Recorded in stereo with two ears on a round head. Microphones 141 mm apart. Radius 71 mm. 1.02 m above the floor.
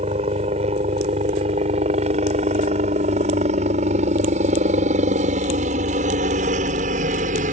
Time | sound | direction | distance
0.0 | a helicopter | 35° right (ahead or behind) | ?